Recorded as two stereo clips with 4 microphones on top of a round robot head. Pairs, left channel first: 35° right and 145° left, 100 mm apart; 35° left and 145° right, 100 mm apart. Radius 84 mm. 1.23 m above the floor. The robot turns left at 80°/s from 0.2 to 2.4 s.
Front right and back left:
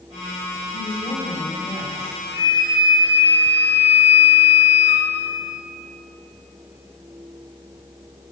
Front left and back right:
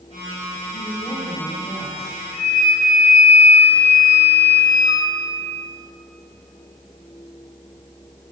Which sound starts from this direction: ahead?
A flute, at 2.3 s.